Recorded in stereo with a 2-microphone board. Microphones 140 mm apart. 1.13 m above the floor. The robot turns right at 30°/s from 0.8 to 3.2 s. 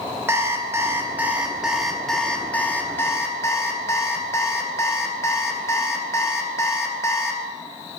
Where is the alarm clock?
35° right, 0.6 m; by 7.4 s 40° left, 0.6 m.